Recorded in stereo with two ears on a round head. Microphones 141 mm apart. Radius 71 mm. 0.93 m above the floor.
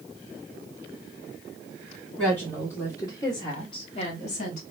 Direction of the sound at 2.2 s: 10° left (ahead or behind).